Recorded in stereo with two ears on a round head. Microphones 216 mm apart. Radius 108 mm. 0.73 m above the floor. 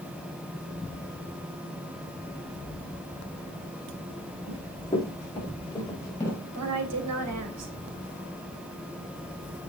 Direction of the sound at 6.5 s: 70° right (ahead or behind).